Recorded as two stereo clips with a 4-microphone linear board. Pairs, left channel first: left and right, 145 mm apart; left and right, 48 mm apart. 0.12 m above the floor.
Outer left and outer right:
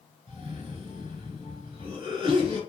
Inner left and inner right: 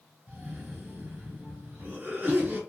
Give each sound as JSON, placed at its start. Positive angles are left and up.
{"t": 0.3, "sound": "a cough", "side_deg": -30, "distance_m": 1.5}